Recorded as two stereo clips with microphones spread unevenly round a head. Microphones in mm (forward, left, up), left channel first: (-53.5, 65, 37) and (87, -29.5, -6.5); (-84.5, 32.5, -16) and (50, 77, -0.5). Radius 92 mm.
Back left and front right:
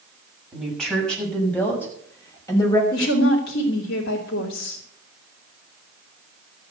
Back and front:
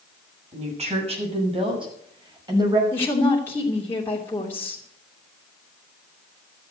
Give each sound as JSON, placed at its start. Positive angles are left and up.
{"t": 0.5, "sound": "a woman speaking", "azimuth_deg": 55, "distance_m": 7.5}
{"t": 2.9, "sound": "a woman speaking", "azimuth_deg": 125, "distance_m": 3.0}